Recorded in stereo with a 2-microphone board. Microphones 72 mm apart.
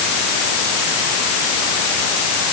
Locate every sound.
Only background noise.